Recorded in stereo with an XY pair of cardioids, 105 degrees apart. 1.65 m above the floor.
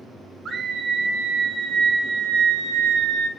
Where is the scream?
50° right, 4 m; by 3.3 s 70° right, 4 m.